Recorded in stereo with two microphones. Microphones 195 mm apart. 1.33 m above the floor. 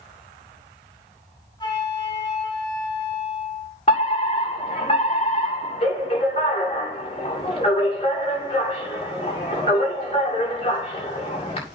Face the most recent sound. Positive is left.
turn(degrees=30)  # may be behind; listen again after turning